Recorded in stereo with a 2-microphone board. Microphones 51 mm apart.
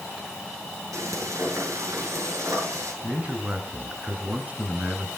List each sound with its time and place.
0.9 s frying: 80° right, 8.5 m
3.0 s a man speaking: 30° right (ahead or behind), 5.5 m